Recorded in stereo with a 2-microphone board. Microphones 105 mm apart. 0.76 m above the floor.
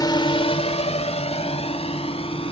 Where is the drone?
40° left (ahead or behind); by 2.5 s 60° left (ahead or behind).